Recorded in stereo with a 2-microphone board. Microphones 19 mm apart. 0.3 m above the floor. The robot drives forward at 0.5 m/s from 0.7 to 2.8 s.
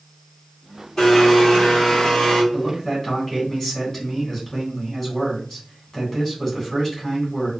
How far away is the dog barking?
No dog barking in this recording.